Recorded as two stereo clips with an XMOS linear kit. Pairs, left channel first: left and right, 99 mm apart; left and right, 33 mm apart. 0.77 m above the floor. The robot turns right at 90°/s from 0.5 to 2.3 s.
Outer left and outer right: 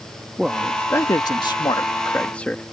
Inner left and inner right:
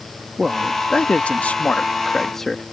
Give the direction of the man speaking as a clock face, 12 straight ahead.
12 o'clock.